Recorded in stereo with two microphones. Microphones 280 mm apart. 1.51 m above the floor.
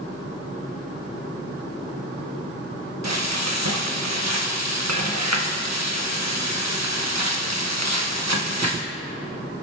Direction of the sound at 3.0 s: 80° right.